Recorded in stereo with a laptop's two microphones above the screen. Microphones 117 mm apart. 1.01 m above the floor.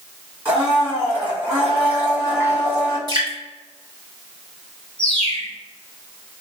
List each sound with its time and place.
0.5 s a blender: 15° right (ahead or behind), 1.5 m
3.1 s dripping: 35° right (ahead or behind), 1.0 m
5.0 s a bird: 10° left (ahead or behind), 1.1 m